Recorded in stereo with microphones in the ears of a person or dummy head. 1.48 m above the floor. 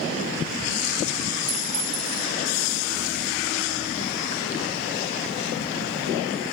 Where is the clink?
30° right (ahead or behind), 4 m.